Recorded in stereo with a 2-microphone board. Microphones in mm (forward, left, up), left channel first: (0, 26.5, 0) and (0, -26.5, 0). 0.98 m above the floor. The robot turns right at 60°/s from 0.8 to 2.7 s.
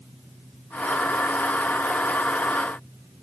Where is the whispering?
I don't hear whispering.